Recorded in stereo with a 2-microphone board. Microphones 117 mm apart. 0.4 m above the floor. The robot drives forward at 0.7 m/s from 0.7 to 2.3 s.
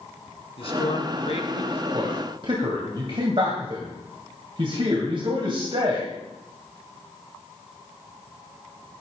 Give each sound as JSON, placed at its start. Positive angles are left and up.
{"t": 0.6, "sound": "a man speaking", "side_deg": 55, "distance_m": 3.5}
{"t": 1.9, "sound": "a man speaking", "side_deg": -45, "distance_m": 2.5}